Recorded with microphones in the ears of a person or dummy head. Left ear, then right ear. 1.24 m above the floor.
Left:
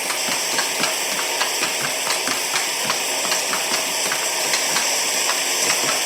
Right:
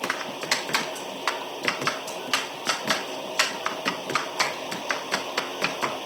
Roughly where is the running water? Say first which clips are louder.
Left 7 dB; left.